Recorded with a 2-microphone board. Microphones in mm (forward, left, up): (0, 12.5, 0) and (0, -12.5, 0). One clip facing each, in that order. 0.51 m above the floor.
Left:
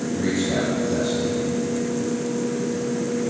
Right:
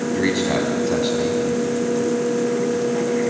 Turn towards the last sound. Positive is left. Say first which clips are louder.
# right 3 dB
turn(degrees=-50)  # may be behind; listen again after turning